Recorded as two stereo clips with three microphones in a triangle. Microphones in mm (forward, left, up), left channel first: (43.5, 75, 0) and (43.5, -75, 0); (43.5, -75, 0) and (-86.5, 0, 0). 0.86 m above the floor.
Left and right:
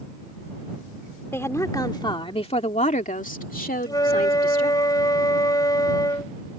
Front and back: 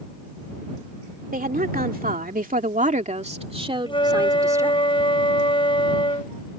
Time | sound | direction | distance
1.3 | a woman speaking | 165° left | ?
3.9 | a flute | 25° left | ?